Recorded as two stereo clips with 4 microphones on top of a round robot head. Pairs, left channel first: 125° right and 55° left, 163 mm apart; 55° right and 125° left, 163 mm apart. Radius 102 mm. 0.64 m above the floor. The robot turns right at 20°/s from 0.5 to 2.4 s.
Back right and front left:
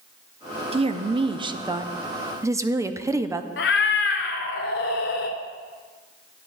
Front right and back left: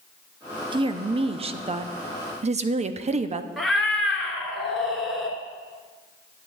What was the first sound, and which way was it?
A woman speaking, 85° left.